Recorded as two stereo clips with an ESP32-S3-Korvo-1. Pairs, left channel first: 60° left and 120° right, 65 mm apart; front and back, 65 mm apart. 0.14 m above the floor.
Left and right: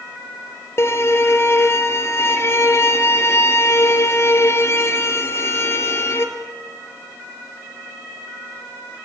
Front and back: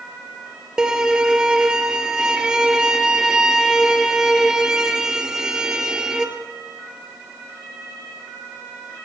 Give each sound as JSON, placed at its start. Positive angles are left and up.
{"t": 0.8, "sound": "a violin", "azimuth_deg": 100, "distance_m": 2.0}